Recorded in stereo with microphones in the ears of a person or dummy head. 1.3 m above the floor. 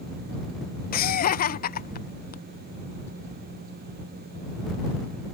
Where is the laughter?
45° left (ahead or behind).